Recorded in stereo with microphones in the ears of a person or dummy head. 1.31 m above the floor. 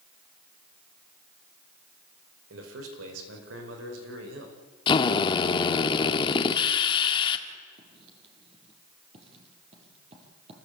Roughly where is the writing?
Right.